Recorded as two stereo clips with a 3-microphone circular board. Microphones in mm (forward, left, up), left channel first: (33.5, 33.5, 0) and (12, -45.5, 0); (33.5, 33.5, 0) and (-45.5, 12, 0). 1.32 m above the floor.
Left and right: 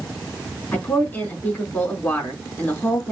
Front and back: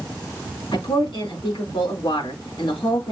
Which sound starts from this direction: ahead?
A woman speaking, at 0.7 s.